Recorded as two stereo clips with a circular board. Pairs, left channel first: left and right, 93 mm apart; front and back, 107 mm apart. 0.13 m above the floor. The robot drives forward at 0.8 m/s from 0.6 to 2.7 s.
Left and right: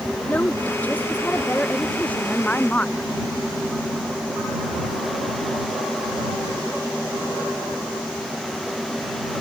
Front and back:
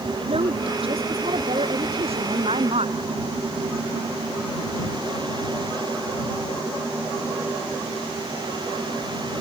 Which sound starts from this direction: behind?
A woman speaking, at 0.3 s.